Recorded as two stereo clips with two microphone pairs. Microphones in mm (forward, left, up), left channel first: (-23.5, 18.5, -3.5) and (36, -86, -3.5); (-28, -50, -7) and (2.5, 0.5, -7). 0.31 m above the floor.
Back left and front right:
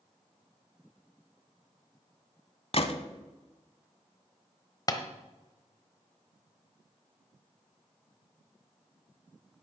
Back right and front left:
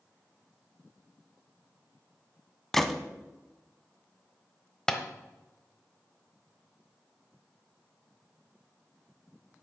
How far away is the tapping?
About 1.0 m.